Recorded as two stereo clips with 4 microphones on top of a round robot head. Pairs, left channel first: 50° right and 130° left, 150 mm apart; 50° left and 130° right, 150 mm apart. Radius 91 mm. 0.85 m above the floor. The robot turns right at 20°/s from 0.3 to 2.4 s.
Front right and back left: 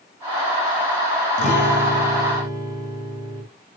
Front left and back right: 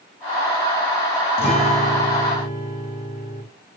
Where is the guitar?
5° right, 0.9 m; by 3.4 s 20° left, 0.9 m.